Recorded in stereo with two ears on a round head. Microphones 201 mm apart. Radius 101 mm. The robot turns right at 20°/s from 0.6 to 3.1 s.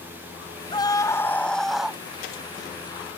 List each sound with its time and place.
0.7 s a scream: 20° left (ahead or behind); by 2.0 s 5° right (ahead or behind)